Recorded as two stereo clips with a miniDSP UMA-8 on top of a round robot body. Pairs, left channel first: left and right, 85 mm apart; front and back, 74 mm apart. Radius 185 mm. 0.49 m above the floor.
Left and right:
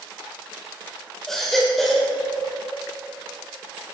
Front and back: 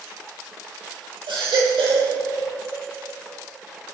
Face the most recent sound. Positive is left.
turn(degrees=175)